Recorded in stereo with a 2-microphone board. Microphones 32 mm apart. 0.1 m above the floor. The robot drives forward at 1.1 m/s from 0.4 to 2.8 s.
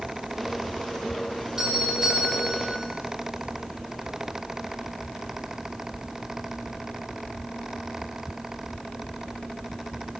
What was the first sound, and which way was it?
A doorbell, 25° right (ahead or behind).